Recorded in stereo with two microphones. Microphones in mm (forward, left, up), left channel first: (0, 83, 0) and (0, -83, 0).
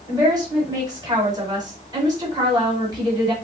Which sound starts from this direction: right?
A woman speaking, at 0.1 s.